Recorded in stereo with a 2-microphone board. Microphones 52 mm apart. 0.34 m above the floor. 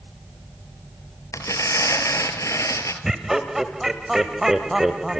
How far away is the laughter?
About 1.2 m.